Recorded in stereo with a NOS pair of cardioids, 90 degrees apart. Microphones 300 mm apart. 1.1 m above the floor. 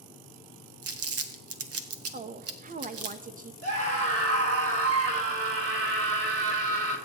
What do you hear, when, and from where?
0.8 s crumpling: 55° right, 1.5 m
2.1 s a woman speaking: 30° right, 1.1 m
3.6 s a scream: 55° right, 4.5 m